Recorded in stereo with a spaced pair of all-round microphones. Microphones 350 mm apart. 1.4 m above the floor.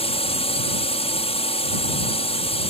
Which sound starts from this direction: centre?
A drone, at 0.0 s.